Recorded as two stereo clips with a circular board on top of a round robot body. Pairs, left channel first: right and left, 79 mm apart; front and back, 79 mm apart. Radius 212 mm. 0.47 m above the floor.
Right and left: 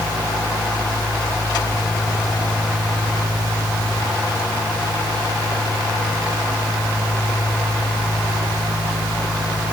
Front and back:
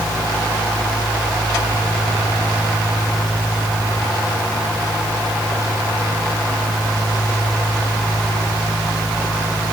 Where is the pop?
No pop in this recording.